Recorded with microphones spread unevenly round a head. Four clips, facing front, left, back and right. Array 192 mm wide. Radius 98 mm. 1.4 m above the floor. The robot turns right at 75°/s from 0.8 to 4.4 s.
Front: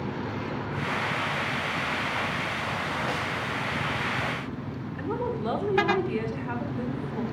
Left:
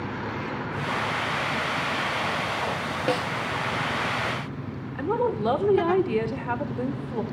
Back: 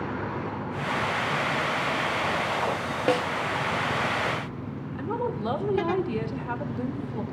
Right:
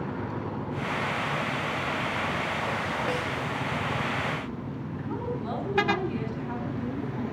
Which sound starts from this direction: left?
A woman speaking, at 5.0 s.